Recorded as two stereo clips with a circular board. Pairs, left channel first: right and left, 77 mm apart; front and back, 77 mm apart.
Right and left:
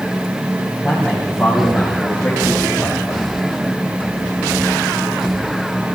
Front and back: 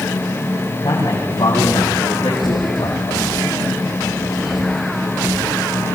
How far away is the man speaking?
About 8.5 m.